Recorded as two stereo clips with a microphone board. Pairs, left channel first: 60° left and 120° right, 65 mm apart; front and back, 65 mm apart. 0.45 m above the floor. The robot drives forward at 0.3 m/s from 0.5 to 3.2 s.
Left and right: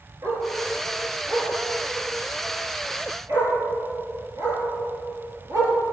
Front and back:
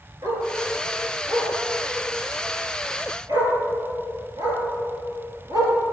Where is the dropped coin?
No dropped coin in this recording.